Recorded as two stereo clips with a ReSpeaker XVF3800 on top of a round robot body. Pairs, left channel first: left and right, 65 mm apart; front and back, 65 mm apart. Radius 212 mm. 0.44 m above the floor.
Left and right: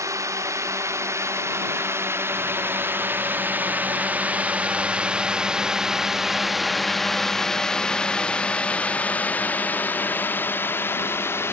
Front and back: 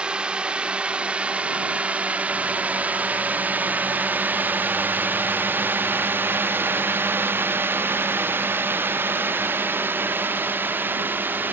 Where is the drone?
110° right; by 11.5 s 130° left.